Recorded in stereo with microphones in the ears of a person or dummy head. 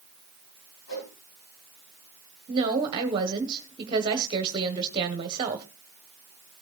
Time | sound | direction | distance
0.9 | a whoosh | 85° left | 8.5 m
2.5 | a woman speaking | 20° right (ahead or behind) | 1.5 m